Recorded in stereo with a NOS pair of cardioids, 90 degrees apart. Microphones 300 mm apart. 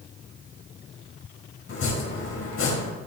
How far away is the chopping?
About 4 m.